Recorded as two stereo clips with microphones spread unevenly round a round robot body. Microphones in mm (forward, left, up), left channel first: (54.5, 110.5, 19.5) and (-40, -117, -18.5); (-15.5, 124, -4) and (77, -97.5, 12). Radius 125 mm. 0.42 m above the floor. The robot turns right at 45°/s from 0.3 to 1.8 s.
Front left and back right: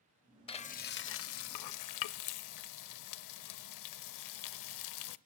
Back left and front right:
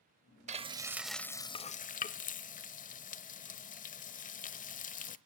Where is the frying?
5° right, 0.7 m; by 5.2 s 55° left, 0.7 m.